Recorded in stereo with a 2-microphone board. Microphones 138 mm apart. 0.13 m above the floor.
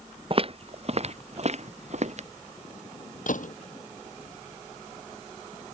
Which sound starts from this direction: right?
Footsteps, at 0.3 s.